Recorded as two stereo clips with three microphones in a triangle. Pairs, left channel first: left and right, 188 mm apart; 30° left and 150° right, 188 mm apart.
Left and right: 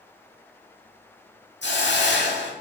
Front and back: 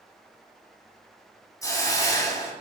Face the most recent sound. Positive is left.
turn(degrees=100)